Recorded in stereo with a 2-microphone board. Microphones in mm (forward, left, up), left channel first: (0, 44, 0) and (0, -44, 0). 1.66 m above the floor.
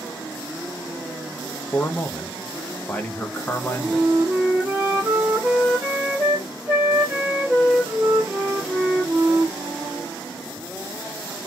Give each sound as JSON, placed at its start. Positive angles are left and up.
{"t": 1.7, "sound": "a man speaking", "side_deg": 15, "distance_m": 0.7}
{"t": 3.7, "sound": "a flute", "side_deg": -20, "distance_m": 1.8}